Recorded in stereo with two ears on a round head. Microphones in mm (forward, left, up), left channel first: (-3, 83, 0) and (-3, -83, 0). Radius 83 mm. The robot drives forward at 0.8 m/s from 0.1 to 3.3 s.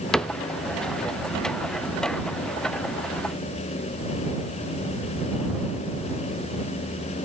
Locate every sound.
0.1 s a cupboard door: 5° left (ahead or behind), 0.6 m